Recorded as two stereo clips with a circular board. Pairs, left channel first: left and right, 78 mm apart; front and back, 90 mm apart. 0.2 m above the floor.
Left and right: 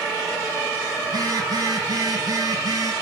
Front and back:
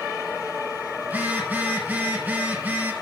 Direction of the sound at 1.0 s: 110° right.